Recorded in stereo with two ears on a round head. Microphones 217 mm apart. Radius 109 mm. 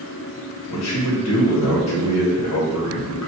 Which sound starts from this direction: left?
A man speaking, at 0.7 s.